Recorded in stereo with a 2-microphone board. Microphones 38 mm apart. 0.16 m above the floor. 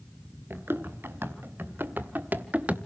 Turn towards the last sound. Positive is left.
turn(degrees=-35)  # may be behind; listen again after turning